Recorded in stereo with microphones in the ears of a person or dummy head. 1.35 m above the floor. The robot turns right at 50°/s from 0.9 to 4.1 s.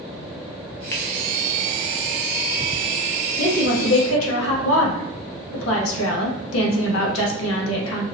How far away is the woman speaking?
About 1.0 m.